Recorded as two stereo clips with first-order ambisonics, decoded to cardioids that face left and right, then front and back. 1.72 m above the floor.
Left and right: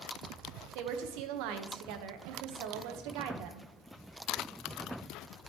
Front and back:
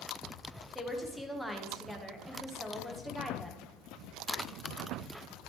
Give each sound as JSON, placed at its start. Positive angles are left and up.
{"t": 0.8, "sound": "a woman speaking", "azimuth_deg": -95, "distance_m": 1.0}